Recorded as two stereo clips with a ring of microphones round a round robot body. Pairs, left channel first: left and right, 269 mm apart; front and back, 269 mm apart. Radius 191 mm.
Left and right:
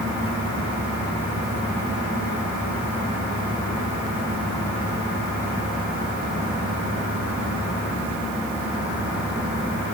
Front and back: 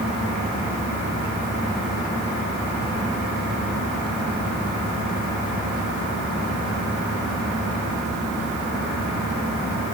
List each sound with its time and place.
Only background noise.